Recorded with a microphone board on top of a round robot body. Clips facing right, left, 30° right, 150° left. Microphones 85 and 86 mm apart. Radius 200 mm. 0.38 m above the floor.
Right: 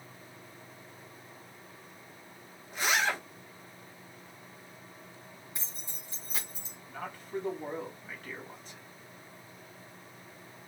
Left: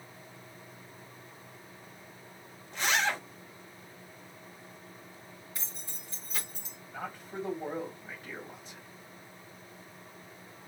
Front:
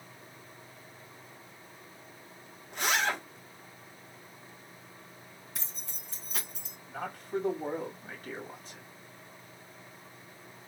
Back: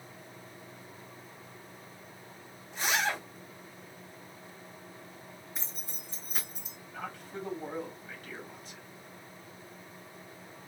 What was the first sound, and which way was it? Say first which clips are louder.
A zipper: even, front 1 dB; 10° right.